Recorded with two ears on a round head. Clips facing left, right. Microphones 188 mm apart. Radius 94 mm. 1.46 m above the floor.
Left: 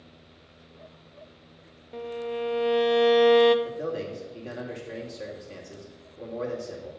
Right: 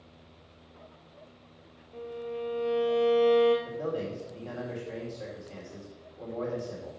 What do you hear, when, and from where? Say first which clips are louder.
1.9 s a violin: left 5 dB; 70° left (ahead or behind), 0.7 m
3.6 s a man speaking: left 1 dB; 25° left (ahead or behind), 2.5 m